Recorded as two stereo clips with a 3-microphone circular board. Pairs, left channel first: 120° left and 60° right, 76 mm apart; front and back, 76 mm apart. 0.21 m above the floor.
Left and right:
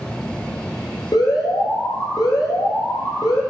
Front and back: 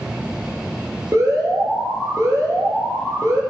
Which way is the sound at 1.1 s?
135° left.